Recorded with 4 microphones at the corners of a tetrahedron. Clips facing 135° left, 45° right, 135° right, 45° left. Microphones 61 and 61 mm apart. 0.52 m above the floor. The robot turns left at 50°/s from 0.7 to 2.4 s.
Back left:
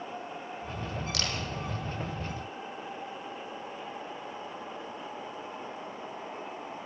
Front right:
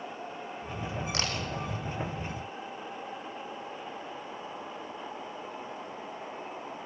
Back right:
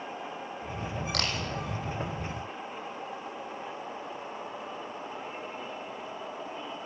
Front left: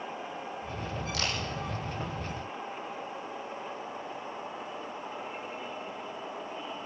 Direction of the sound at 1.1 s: 105° right.